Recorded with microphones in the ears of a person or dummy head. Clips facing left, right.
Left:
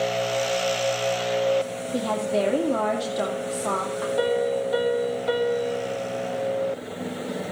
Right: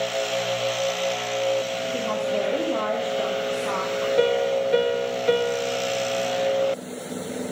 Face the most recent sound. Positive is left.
turn(degrees=-35)  # may be behind; listen again after turning